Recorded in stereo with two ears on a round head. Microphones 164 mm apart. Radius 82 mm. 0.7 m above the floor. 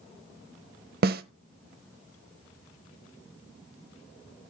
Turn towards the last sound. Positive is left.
turn(degrees=-55)  # may be behind; listen again after turning